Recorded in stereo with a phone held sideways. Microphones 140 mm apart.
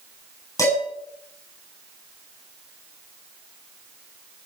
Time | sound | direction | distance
0.6 | dishes clattering | 25° left (ahead or behind) | 6 m